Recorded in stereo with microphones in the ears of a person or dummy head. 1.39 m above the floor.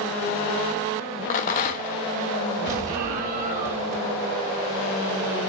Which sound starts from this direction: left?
A rattle, at 1.3 s.